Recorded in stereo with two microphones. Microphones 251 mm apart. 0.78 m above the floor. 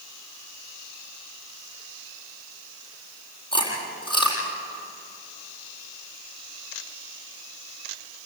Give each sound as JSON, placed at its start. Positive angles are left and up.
{"t": 3.5, "sound": "chewing", "side_deg": 20, "distance_m": 7.5}